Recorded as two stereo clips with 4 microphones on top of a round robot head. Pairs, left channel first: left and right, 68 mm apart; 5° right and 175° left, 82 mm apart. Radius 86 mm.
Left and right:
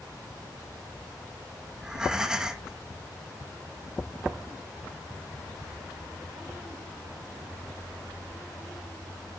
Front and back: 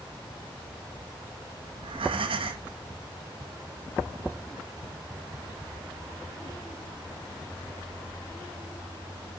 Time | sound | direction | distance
1.8 | breathing | 170° right | 0.8 m